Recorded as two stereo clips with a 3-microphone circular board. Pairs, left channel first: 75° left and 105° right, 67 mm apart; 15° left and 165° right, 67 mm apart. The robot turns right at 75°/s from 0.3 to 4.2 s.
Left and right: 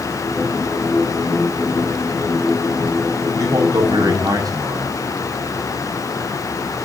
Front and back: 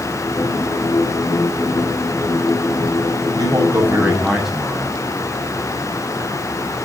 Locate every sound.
3.4 s a man speaking: 145° right, 8 m; by 5.0 s 80° right, 8 m